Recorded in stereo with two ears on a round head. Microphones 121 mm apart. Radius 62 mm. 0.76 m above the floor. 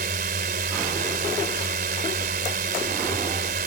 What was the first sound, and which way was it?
A drone, 70° right (ahead or behind).